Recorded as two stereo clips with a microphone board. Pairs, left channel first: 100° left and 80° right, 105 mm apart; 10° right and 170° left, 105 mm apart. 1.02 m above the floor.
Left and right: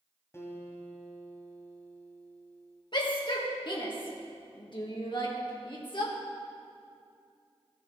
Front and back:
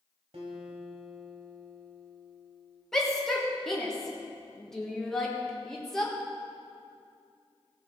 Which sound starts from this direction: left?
A shout, at 2.9 s.